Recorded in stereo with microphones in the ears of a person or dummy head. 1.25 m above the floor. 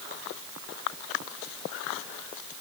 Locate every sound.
Only background noise.